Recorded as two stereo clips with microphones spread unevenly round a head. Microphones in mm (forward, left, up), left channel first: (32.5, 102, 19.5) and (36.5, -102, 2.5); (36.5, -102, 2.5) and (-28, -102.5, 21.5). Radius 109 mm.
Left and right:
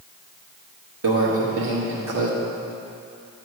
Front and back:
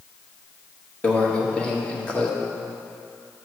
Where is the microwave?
80° right, 1.5 m.